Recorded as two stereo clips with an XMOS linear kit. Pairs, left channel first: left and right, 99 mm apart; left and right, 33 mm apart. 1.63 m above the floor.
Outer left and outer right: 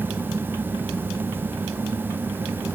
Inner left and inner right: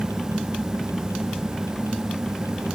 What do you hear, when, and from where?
Only background noise.